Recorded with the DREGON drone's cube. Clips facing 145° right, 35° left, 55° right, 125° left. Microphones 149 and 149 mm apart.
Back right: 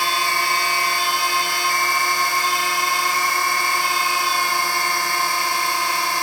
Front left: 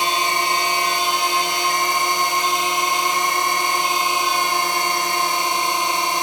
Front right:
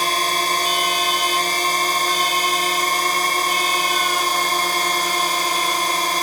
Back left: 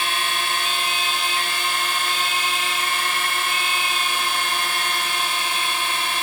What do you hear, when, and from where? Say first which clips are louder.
0.0 s a drone: front left 2 dB, front right 5 dB; 30° right